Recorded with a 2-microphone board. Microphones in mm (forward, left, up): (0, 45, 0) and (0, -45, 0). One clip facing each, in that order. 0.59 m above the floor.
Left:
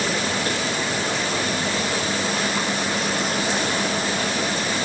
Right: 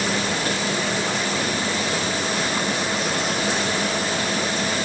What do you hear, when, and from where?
Only background noise.